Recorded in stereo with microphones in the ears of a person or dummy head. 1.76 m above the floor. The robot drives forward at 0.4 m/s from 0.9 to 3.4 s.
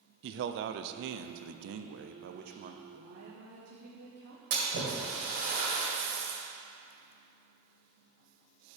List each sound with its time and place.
0.2 s a man speaking: 60° right (ahead or behind), 0.6 m; by 2.8 s 40° right (ahead or behind), 0.8 m
2.9 s a woman speaking: 80° right, 1.3 m
4.5 s a splash: 45° right (ahead or behind), 2.0 m